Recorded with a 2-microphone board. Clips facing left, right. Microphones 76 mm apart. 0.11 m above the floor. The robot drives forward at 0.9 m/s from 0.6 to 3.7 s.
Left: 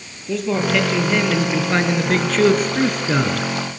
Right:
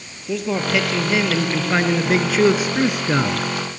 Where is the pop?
No pop in this recording.